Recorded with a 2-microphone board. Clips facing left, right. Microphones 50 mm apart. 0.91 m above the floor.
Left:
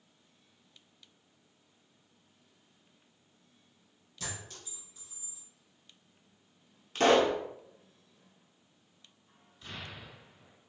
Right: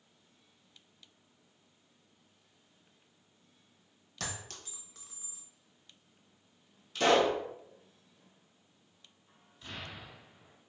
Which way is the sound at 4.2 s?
65° right (ahead or behind).